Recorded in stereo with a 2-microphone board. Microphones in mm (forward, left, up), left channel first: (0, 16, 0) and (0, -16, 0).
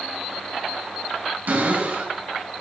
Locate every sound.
1.5 s a cupboard door: 60° right (ahead or behind), 3.5 m